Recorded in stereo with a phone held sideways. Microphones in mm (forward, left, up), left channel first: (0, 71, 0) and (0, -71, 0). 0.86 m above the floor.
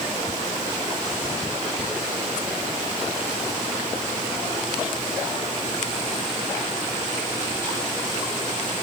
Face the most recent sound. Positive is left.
No sound to turn to.